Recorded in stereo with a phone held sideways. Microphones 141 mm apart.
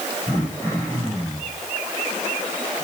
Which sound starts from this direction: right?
Throat clearing, at 0.3 s.